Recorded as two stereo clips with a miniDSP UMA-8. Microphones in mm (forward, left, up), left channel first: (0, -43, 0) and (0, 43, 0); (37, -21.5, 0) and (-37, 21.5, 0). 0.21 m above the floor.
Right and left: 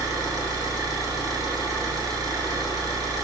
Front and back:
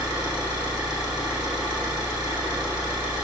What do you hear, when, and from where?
0.0 s an engine running: 130° left, 1.1 m